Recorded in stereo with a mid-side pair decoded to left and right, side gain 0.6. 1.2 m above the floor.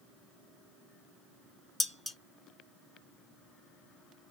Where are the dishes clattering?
10° left, 0.6 m.